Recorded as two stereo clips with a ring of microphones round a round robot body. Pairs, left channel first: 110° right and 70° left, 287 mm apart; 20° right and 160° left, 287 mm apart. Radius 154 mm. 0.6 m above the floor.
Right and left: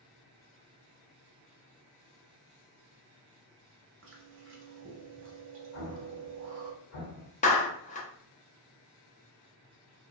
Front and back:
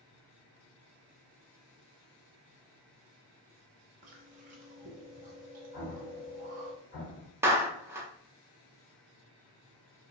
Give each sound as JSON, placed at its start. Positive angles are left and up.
{"t": 4.0, "sound": "chewing", "azimuth_deg": 100, "distance_m": 0.6}
{"t": 5.7, "sound": "an explosion", "azimuth_deg": -75, "distance_m": 1.3}
{"t": 7.4, "sound": "a clap", "azimuth_deg": -130, "distance_m": 0.7}